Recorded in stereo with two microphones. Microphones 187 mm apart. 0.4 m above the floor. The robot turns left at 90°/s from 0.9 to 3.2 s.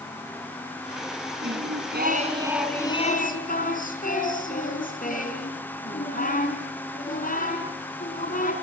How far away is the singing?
About 3.5 m.